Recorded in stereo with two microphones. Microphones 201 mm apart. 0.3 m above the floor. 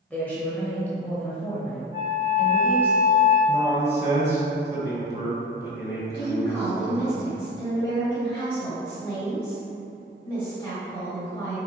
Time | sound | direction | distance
0.1 | a woman speaking | 10° left (ahead or behind) | 0.9 m
1.9 | a flute | 15° right (ahead or behind) | 0.8 m
3.5 | a man speaking | 15° right (ahead or behind) | 1.4 m
6.1 | a woman speaking | 25° left (ahead or behind) | 1.6 m